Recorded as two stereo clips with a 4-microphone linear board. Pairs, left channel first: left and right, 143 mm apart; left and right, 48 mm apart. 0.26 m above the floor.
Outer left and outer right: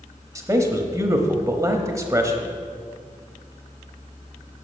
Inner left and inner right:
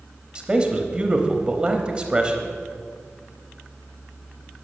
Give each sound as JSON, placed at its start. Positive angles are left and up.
{"t": 0.3, "sound": "a man speaking", "side_deg": -20, "distance_m": 1.0}